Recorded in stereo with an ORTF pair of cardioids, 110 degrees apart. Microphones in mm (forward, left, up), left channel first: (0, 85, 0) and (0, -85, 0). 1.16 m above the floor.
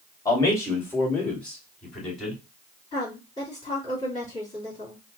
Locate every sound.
0.2 s a man speaking: 20° left, 2 m; by 2.4 s straight ahead, 3 m
2.9 s a woman speaking: 25° left, 2.5 m